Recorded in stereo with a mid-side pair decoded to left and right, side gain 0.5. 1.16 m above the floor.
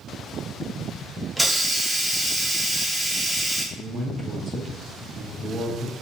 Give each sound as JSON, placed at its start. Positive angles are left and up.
{"t": 1.4, "sound": "a hiss", "azimuth_deg": -10, "distance_m": 0.8}
{"t": 3.8, "sound": "a man speaking", "azimuth_deg": -50, "distance_m": 1.4}